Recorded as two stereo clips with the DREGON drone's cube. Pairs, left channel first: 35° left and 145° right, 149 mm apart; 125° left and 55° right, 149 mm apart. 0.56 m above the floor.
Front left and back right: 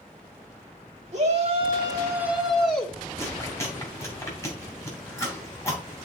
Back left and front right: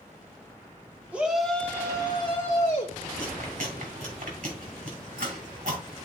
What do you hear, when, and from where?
1.1 s a shout: 135° right, 1.4 m; by 3.0 s 110° left, 1.5 m
3.2 s chewing: 35° right, 2.5 m